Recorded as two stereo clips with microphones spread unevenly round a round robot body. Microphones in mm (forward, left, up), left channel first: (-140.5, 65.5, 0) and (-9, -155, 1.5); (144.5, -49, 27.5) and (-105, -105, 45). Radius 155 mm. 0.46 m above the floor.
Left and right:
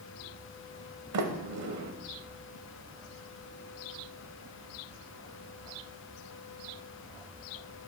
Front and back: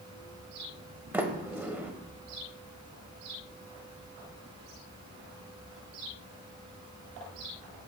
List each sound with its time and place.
1.1 s a sliding door: 85° right, 1.0 m